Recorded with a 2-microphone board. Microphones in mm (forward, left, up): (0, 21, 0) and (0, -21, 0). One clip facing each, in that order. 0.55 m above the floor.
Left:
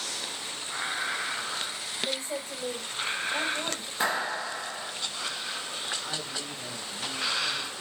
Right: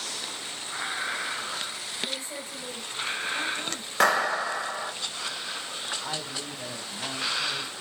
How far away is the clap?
About 2.5 m.